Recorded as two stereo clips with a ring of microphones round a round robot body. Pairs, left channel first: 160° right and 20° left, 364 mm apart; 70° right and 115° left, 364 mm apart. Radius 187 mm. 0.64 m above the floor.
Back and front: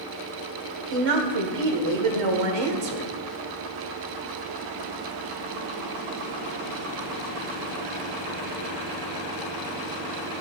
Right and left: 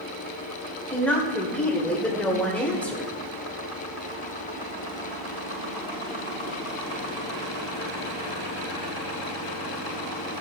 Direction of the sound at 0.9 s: 20° left.